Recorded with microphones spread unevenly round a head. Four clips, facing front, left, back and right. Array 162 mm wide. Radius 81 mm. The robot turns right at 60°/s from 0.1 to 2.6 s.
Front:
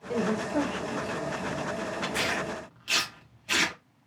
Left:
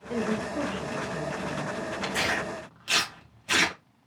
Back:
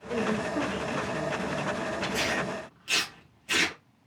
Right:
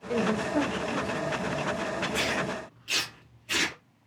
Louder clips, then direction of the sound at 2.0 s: Left 2 dB, even; 40° left.